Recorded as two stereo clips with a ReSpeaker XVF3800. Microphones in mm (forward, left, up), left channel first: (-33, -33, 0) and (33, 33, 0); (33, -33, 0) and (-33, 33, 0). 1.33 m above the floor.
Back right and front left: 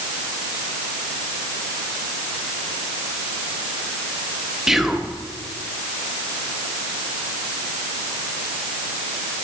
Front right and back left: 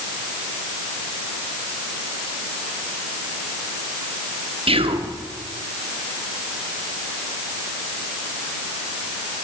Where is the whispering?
130° left, 0.7 m.